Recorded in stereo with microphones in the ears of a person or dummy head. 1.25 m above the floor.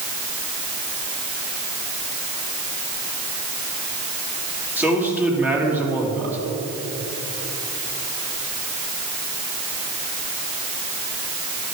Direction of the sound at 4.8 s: 10° right (ahead or behind).